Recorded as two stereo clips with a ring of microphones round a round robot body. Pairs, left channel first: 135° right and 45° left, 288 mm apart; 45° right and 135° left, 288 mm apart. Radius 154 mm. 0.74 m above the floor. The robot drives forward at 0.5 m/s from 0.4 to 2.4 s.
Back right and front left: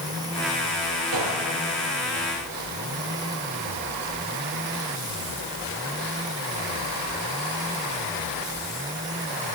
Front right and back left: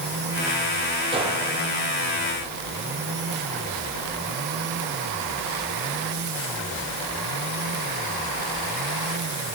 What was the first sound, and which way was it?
A gunshot, 60° left.